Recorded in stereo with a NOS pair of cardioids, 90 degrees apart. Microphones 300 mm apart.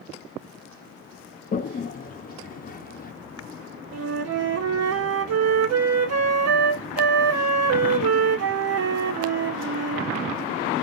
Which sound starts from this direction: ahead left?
A toilet flushing, at 1.5 s.